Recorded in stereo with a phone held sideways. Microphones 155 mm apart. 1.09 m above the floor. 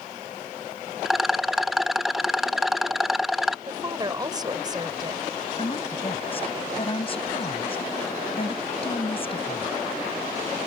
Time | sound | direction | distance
1.1 | a rattle | centre (ahead or behind) | ?
3.7 | a woman speaking | 30° right (ahead or behind) | ?
5.6 | a woman speaking | 35° left (ahead or behind) | ?